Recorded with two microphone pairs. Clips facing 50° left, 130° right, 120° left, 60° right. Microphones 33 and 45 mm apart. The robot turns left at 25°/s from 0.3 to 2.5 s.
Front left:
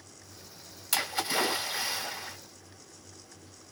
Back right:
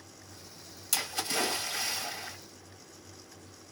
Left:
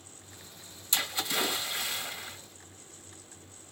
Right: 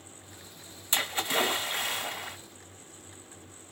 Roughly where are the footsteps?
I don't hear footsteps.